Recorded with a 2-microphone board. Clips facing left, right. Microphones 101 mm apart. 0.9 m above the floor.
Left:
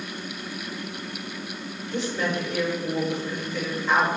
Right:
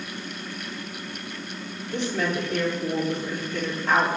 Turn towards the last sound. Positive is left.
turn(degrees=-60)  # may be behind; listen again after turning